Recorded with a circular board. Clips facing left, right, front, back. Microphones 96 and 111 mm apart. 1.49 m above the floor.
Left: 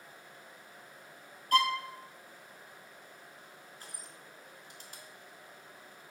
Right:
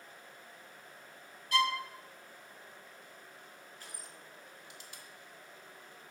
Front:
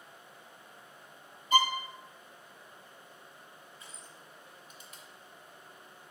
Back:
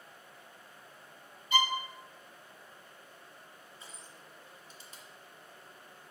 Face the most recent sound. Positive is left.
turn(degrees=130)